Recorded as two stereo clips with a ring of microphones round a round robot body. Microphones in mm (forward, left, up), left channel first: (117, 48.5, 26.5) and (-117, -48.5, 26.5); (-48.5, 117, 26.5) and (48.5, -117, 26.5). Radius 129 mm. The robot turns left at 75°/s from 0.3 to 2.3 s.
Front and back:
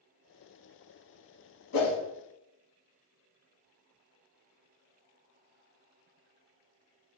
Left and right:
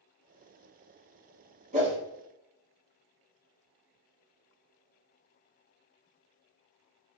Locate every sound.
1.7 s a whoosh: 5° right, 0.8 m; by 1.9 s 20° right, 0.8 m